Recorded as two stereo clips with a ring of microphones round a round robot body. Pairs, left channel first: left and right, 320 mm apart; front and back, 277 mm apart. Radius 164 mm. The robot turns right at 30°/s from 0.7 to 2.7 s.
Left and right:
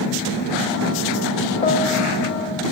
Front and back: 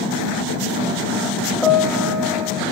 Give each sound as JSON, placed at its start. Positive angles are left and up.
{"t": 1.6, "sound": "a piano", "azimuth_deg": 80, "distance_m": 0.7}